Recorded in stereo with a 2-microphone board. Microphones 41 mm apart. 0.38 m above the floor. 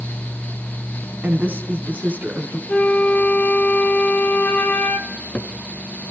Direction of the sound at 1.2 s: 40° right (ahead or behind).